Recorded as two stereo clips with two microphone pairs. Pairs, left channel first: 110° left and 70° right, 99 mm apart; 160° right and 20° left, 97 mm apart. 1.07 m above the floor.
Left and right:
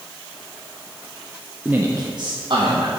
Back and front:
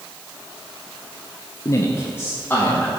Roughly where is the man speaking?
Behind right.